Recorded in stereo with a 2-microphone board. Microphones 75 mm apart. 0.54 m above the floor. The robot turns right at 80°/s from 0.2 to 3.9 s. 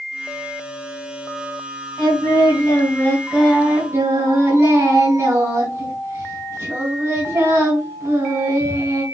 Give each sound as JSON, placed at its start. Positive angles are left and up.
{"t": 2.0, "sound": "singing", "azimuth_deg": 65, "distance_m": 3.5}